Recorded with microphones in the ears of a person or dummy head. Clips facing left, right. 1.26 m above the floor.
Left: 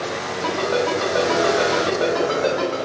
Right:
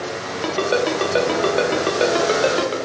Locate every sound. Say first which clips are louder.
0.4 s a ringtone: right 2 dB; 40° right (ahead or behind), 0.5 m